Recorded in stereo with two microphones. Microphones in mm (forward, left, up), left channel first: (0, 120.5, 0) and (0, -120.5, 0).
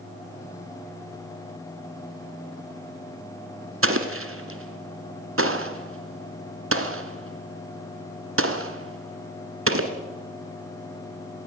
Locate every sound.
3.8 s an explosion: 60° right (ahead or behind), 1.6 m